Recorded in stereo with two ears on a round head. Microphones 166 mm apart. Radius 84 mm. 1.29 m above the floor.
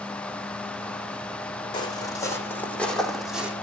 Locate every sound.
1.7 s footsteps: 25° left (ahead or behind), 4.5 m; by 3.5 s 10° right (ahead or behind), 4 m